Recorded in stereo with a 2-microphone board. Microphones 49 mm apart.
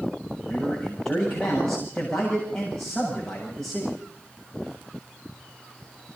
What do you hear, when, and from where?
0.4 s a man speaking: 10° left (ahead or behind), 8 m